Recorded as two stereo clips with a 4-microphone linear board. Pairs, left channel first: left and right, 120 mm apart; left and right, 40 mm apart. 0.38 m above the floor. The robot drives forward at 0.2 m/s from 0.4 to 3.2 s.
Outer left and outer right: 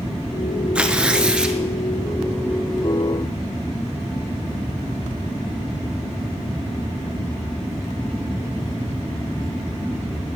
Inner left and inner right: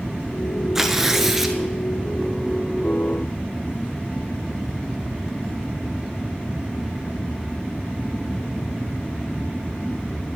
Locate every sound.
0.8 s tearing paper: 10° right (ahead or behind), 0.7 m